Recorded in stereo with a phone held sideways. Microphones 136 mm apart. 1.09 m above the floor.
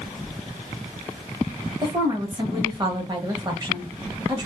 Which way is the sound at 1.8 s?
30° right (ahead or behind).